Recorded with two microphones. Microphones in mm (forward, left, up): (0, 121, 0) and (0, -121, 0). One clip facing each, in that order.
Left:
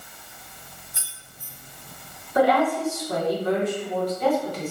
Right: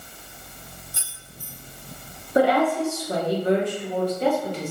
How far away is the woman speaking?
About 0.9 m.